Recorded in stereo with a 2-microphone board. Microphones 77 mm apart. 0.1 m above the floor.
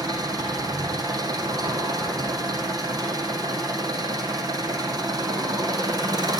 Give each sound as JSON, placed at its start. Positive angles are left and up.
{"t": 0.0, "sound": "an engine running", "side_deg": -65, "distance_m": 4.0}